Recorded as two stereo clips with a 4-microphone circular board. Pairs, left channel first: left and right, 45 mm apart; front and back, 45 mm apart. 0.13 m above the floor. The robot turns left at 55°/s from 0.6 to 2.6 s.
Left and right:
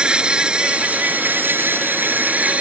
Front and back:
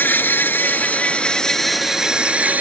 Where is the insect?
30° right; by 2.6 s 140° right.